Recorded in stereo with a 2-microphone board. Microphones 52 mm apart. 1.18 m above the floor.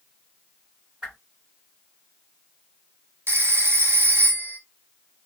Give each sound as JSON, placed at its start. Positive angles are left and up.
{"t": 1.0, "sound": "a whoosh", "side_deg": -25, "distance_m": 1.8}
{"t": 3.3, "sound": "a phone ringing", "side_deg": -50, "distance_m": 0.6}